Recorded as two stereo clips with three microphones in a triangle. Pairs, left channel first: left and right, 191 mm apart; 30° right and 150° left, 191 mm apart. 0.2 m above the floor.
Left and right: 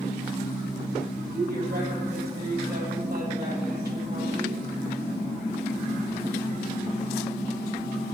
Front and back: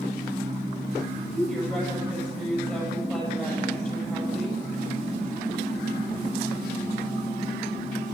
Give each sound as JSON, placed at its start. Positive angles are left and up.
{"t": 1.3, "sound": "a woman speaking", "azimuth_deg": -115, "distance_m": 6.5}